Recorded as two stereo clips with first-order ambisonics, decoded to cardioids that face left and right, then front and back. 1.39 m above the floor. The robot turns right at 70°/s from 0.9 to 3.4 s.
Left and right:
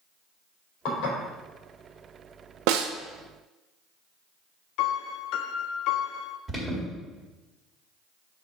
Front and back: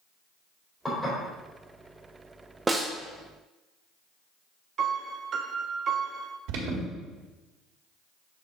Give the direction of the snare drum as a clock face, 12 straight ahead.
3 o'clock.